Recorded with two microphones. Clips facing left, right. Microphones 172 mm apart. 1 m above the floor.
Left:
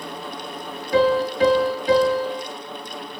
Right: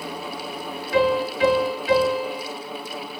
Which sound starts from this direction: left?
A piano, at 0.9 s.